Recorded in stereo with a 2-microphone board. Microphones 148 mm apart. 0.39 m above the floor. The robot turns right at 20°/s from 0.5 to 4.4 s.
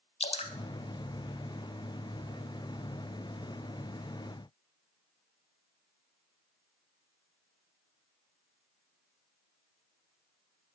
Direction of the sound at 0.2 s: 45° left (ahead or behind).